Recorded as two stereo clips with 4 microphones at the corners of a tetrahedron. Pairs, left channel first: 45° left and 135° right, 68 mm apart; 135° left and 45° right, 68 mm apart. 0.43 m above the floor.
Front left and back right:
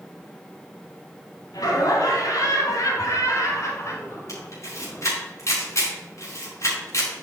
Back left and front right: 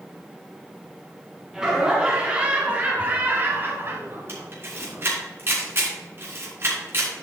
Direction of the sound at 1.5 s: 35° left.